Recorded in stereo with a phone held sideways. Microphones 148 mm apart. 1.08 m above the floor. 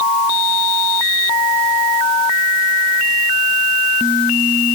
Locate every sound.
Only background noise.